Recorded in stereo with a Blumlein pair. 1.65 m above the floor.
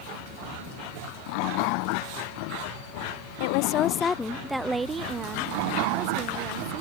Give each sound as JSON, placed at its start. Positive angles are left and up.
{"t": 3.4, "sound": "a woman speaking", "azimuth_deg": 50}